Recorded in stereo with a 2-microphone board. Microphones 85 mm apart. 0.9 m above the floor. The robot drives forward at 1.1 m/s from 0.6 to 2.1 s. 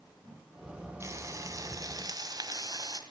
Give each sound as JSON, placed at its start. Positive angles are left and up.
{"t": 1.0, "sound": "frying", "side_deg": -35, "distance_m": 3.5}